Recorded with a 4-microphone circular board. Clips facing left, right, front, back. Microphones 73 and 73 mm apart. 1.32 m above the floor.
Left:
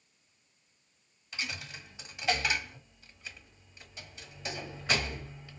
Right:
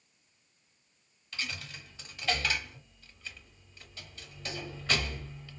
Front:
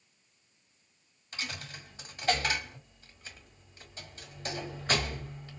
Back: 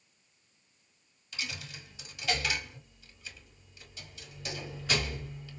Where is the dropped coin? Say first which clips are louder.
Even, front 1 dB; 20° left, 1.1 m.